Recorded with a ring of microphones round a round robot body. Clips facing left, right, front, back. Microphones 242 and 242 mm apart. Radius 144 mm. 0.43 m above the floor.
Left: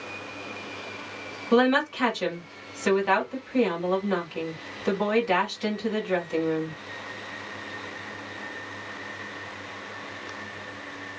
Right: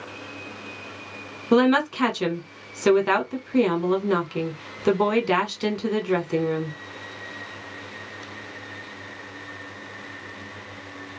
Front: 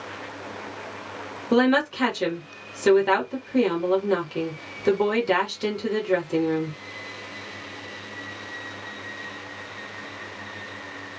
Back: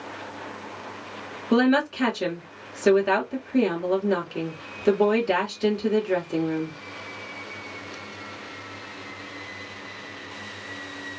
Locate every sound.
1.5 s a woman speaking: 80° right, 1.4 m